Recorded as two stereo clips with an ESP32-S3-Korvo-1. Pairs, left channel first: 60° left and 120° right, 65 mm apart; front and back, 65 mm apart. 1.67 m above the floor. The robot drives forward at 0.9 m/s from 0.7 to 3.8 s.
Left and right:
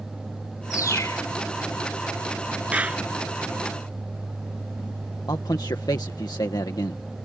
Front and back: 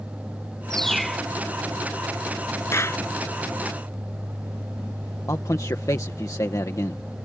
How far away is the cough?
No cough in this recording.